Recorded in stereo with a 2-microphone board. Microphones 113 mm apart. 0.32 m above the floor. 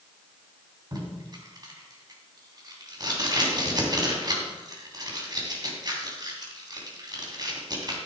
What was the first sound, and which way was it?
Tape being pulled, 40° right (ahead or behind).